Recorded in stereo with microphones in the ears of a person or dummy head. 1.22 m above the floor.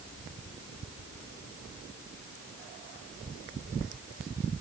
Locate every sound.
Only background noise.